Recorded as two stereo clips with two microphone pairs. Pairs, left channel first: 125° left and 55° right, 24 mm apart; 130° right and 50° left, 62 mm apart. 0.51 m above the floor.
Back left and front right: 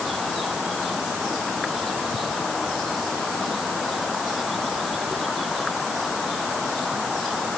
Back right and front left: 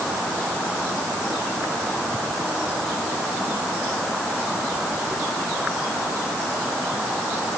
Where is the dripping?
I don't hear dripping.